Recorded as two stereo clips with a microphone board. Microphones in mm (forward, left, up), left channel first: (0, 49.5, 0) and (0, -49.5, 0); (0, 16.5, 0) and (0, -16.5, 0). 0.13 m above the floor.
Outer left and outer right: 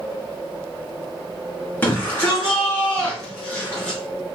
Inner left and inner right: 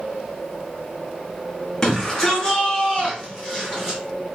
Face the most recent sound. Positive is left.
turn(degrees=10)  # may be behind; listen again after turning